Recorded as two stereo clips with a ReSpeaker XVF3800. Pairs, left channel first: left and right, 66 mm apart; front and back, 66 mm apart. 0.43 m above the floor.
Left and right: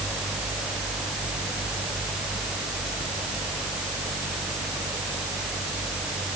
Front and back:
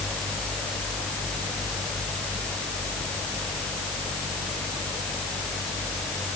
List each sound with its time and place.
Only background noise.